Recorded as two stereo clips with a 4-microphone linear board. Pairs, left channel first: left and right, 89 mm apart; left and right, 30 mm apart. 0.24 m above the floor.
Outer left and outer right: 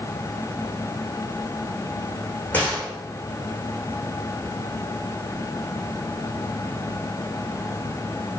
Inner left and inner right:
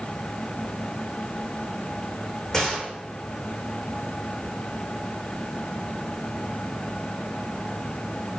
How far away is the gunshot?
About 5 m.